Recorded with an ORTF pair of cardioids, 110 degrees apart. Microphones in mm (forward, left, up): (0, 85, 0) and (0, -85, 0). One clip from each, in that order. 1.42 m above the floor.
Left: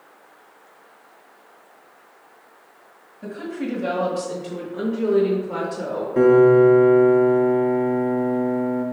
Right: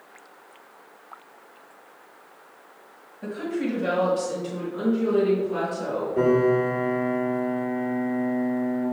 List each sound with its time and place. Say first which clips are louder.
3.2 s a woman speaking: right 1 dB; straight ahead, 1.5 m; by 6.1 s 65° left, 1.5 m
6.2 s a piano: left 8 dB; 60° left, 1.1 m